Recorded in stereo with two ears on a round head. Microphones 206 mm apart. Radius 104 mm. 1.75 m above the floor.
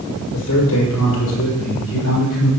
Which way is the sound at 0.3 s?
70° left (ahead or behind).